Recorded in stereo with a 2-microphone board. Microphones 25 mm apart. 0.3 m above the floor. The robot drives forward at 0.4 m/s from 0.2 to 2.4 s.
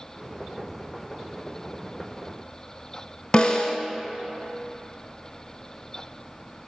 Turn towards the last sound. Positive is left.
turn(degrees=40)  # may be behind; listen again after turning